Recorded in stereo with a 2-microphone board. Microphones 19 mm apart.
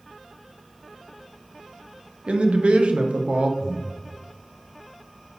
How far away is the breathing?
About 1.3 m.